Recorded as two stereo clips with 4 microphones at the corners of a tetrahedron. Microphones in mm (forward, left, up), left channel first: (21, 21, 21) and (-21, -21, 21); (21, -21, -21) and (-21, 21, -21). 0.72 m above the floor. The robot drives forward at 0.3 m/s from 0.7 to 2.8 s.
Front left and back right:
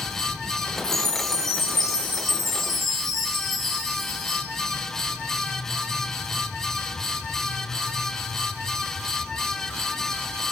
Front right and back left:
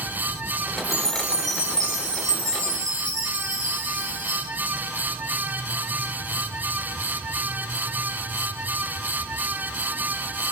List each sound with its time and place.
0.8 s a chime: 125° left, 8 m; by 4.4 s 130° left, 8.5 m